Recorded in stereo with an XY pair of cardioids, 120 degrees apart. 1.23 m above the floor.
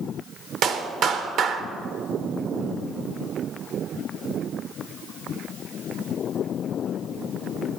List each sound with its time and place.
0.6 s a clap: 65° right, 1.1 m